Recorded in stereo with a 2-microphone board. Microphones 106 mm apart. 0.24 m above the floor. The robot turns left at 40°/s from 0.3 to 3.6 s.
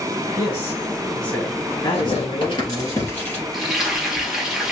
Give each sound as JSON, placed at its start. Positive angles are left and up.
{"t": 0.4, "sound": "a man speaking", "azimuth_deg": 145, "distance_m": 1.8}
{"t": 1.9, "sound": "tearing paper", "side_deg": 65, "distance_m": 3.0}
{"t": 3.5, "sound": "frying", "side_deg": 0, "distance_m": 2.0}